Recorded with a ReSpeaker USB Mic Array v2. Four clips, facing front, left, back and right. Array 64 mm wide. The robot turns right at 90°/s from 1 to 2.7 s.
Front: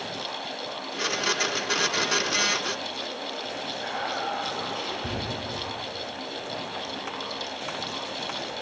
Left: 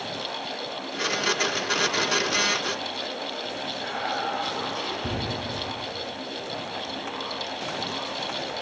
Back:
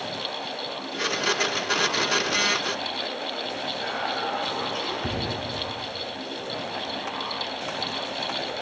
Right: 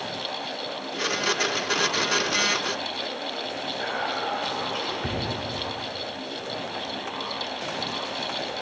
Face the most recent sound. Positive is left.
turn(degrees=-115)